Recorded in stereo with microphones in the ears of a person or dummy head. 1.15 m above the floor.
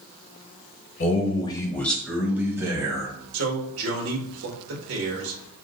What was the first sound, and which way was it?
A man speaking, 45° left (ahead or behind).